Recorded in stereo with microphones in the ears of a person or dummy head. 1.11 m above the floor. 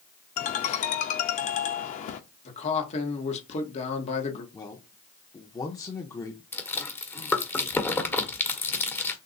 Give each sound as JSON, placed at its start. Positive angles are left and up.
{"t": 0.4, "sound": "a ringtone", "side_deg": 45, "distance_m": 0.5}
{"t": 2.5, "sound": "a man speaking", "side_deg": 35, "distance_m": 1.2}
{"t": 4.5, "sound": "a man speaking", "side_deg": 15, "distance_m": 0.6}
{"t": 6.5, "sound": "chewing", "side_deg": 10, "distance_m": 1.2}